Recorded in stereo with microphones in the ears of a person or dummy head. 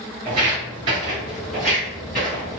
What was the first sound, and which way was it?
Footsteps, 30° right (ahead or behind).